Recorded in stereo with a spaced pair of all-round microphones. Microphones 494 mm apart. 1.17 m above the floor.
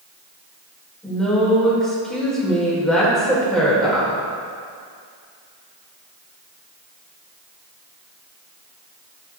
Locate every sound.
1.0 s a woman speaking: centre (ahead or behind), 5 m